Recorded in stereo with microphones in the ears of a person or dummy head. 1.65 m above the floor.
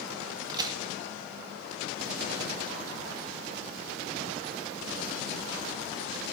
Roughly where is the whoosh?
No whoosh in this recording.